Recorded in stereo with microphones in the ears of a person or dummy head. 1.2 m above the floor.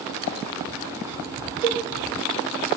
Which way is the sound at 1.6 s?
15° right (ahead or behind).